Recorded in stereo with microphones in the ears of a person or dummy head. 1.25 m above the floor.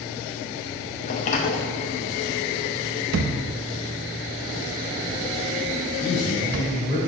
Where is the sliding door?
35° left (ahead or behind), 0.6 m.